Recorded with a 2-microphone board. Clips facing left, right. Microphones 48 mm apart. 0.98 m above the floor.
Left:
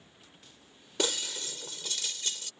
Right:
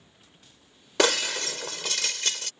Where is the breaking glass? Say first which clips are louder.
Right 9 dB; 85° right.